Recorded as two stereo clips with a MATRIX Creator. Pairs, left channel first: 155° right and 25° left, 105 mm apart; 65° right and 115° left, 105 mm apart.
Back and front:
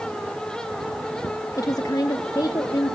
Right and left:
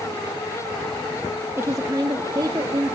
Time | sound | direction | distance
1.6 | a woman speaking | 165° left | 0.8 m